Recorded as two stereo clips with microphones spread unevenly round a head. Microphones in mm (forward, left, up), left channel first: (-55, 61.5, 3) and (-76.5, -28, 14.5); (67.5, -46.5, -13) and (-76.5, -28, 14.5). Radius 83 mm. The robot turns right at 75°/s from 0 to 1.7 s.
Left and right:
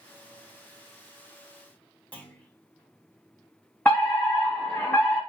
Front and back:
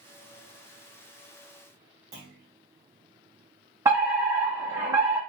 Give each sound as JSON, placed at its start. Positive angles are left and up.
{"t": 2.1, "sound": "a clunk", "azimuth_deg": 155, "distance_m": 1.3}
{"t": 3.9, "sound": "a fire alarm", "azimuth_deg": 95, "distance_m": 1.5}